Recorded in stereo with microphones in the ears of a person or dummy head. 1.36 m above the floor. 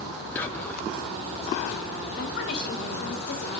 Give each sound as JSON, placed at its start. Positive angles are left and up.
{"t": 0.3, "sound": "whispering", "side_deg": 15, "distance_m": 1.0}
{"t": 2.1, "sound": "a woman speaking", "side_deg": 55, "distance_m": 3.5}